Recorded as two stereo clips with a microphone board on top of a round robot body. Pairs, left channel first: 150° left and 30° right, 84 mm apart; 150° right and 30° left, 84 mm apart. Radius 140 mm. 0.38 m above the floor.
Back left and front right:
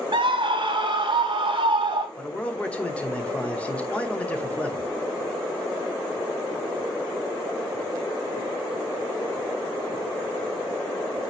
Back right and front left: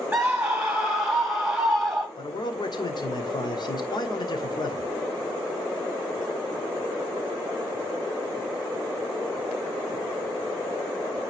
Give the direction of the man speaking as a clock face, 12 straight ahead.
5 o'clock.